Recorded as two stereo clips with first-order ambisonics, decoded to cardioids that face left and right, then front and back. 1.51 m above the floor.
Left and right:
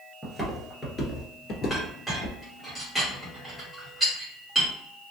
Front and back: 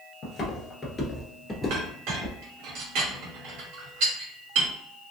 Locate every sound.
0.2 s footsteps: 30° right, 1.6 m; by 2.4 s 95° left, 2.0 m
1.7 s a clink: straight behind, 1.8 m